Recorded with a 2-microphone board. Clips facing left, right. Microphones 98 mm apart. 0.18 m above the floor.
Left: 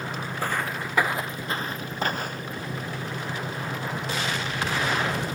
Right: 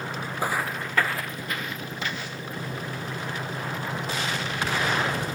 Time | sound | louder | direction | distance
0.4 | footsteps | right 1 dB | 15° right (ahead or behind) | ?